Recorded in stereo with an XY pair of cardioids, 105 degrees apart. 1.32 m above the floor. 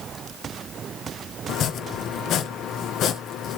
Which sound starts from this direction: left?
Chopping, at 1.5 s.